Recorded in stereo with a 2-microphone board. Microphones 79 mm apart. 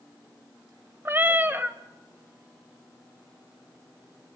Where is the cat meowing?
25° right (ahead or behind), 1.2 m.